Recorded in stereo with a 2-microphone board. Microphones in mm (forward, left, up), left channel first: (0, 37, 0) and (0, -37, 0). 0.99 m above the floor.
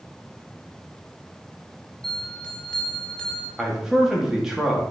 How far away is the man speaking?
About 1.9 m.